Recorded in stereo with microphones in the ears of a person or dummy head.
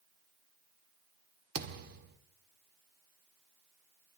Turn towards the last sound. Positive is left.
turn(degrees=-55)  # may be behind; listen again after turning